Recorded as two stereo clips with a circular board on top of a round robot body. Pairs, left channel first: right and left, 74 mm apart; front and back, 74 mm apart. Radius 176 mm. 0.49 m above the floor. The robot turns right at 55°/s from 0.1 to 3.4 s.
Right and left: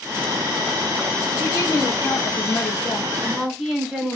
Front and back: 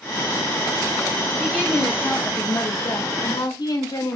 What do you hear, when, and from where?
1.4 s a woman speaking: 105° right, 3 m; by 4.2 s 5° left, 3 m